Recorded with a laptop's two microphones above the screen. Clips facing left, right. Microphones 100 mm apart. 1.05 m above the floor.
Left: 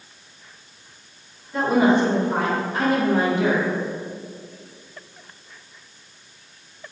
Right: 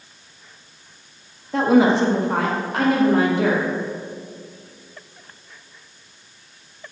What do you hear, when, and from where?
1.5 s a woman speaking: 70° right (ahead or behind), 1.8 m; by 3.6 s 55° right (ahead or behind), 3 m